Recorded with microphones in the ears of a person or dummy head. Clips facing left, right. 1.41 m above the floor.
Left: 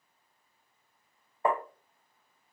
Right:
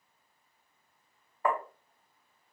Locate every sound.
1.4 s tapping: 20° left (ahead or behind), 0.6 m